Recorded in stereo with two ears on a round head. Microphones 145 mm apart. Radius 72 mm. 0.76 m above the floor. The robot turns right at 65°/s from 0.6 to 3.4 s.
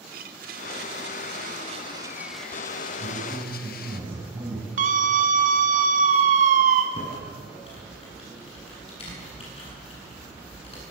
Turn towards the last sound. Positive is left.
turn(degrees=35)  # may be behind; listen again after turning